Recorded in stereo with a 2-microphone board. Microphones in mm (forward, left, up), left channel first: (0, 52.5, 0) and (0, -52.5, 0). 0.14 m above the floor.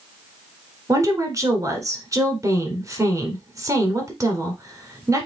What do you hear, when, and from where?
0.9 s a woman speaking: 30° right (ahead or behind), 1.4 m